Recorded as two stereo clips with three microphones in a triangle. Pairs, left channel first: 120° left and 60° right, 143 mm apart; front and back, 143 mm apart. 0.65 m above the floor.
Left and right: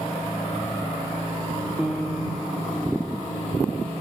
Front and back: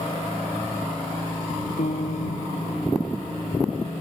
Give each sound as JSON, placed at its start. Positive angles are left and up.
{"t": 1.8, "sound": "a piano", "azimuth_deg": 25}